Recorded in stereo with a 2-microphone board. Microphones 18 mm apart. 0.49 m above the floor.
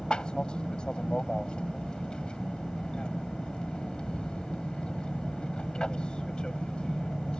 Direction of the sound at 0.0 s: 50° left (ahead or behind).